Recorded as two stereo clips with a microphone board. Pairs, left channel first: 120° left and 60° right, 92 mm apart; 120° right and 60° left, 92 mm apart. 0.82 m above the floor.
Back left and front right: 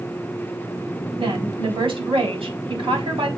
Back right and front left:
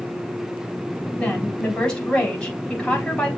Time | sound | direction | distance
1.2 | a woman speaking | 40° right | 4.5 m